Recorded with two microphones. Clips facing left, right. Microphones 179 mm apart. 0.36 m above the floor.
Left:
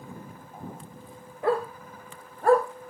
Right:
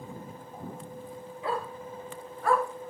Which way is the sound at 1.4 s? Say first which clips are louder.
Left 7 dB; 55° left (ahead or behind).